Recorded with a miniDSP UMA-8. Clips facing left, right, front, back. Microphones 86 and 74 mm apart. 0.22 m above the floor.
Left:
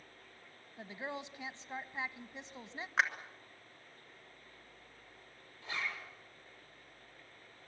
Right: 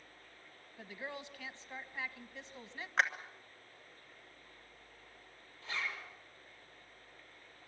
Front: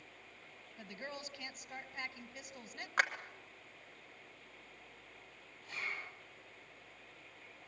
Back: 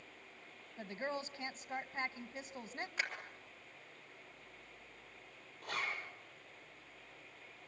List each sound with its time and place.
0.8 s a woman speaking: 145° left, 1.1 m
3.0 s a clap: 5° left, 2.5 m
5.6 s a zipper: 165° left, 7.5 m